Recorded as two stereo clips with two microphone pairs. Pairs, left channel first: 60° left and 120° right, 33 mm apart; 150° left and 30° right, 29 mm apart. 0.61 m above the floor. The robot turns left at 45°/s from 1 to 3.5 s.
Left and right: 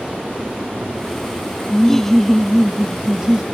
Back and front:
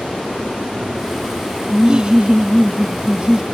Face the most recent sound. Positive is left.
turn(degrees=-75)